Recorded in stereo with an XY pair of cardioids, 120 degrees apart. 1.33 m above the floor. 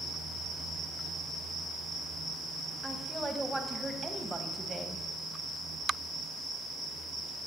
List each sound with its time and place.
2.8 s a woman speaking: 10° right, 1.4 m